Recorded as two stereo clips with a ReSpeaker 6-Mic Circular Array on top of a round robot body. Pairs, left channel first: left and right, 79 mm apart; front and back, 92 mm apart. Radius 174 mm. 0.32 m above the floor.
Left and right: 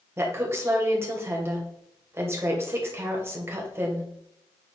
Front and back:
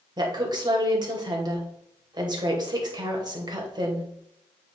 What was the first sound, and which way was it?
A woman speaking, 145° right.